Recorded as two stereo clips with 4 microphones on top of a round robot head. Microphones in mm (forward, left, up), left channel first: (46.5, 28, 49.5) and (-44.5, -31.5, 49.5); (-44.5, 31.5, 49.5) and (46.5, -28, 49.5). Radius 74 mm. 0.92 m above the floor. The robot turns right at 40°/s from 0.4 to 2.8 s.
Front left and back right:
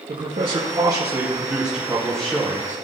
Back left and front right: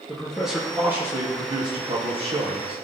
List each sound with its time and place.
0.1 s a man speaking: 120° right, 1.9 m; by 2.8 s 25° right, 1.9 m